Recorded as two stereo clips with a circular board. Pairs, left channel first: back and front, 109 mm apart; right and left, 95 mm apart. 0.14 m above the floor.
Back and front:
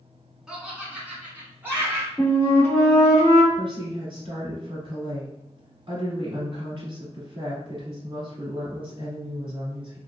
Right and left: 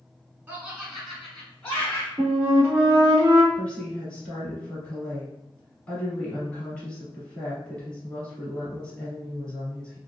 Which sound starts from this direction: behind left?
A flute, at 2.2 s.